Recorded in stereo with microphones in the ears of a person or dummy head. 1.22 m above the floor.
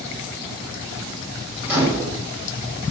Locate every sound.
1.6 s a microwave: 10° right (ahead or behind), 1.9 m